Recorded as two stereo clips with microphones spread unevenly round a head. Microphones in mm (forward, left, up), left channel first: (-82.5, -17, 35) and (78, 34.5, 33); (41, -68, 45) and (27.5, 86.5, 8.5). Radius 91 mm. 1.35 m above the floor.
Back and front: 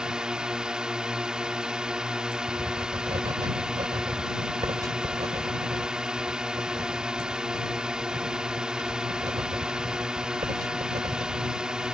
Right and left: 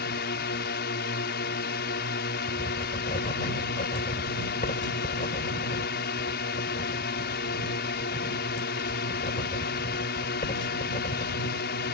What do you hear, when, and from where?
0.0 s a drone: 70° right
2.5 s writing: 50° right